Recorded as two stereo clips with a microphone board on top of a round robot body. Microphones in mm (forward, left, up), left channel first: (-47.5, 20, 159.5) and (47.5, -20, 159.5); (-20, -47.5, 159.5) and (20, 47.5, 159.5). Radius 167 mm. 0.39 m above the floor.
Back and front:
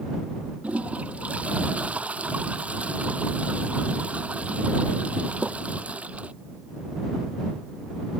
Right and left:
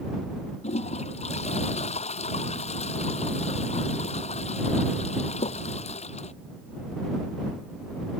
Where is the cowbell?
I don't hear a cowbell.